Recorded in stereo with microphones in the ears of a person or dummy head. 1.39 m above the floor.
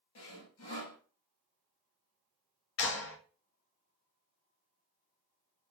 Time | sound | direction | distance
0.1 | sawing | 80° left | 3 m
2.8 | a clap | 70° left (ahead or behind) | 1.8 m